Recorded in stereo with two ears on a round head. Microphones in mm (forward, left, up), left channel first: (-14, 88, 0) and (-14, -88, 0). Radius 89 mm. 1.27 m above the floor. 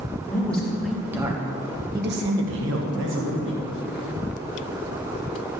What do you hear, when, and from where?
0.3 s a man speaking: 10° left (ahead or behind), 1.9 m; by 3.6 s 65° right (ahead or behind), 2 m